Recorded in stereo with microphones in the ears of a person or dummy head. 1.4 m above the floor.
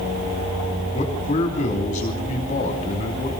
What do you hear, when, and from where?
0.9 s a man speaking: 35° left (ahead or behind), 3 m